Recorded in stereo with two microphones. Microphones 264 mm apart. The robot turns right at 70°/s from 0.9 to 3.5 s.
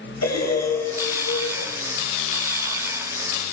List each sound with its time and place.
0.2 s breathing: 80° left, 7 m; by 1.7 s 135° left, 7 m